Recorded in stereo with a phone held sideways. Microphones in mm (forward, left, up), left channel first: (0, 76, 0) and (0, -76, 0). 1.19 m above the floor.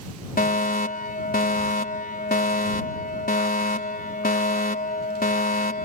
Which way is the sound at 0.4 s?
70° left (ahead or behind).